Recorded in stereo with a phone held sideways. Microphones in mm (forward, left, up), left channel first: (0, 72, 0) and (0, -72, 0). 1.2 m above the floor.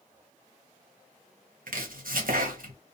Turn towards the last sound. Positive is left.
turn(degrees=-80)